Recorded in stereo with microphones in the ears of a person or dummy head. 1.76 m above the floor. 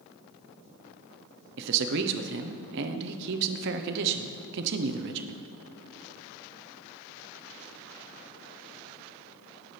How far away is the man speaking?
About 0.9 m.